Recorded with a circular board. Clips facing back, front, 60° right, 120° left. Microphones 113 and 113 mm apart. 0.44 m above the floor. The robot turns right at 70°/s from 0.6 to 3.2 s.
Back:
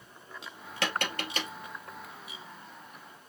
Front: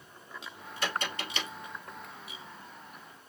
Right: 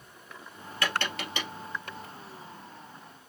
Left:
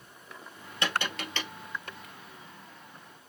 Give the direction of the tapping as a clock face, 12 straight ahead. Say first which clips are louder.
Back 2 dB, even; 6 o'clock.